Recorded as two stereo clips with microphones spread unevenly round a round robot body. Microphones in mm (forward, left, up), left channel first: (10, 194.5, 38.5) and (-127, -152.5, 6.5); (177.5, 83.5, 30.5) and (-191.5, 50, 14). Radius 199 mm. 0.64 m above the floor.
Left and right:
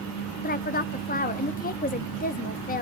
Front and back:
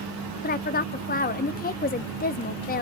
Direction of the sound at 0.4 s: 30° left.